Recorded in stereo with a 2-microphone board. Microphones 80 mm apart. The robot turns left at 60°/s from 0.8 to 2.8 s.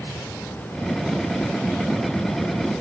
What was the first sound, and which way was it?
Only background noise.